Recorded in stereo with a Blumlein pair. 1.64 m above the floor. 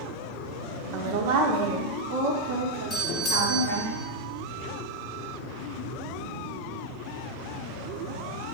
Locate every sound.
0.9 s a woman speaking: 40° right, 0.8 m; by 3.9 s 60° right, 3.5 m
2.9 s a doorbell: 20° left, 1.5 m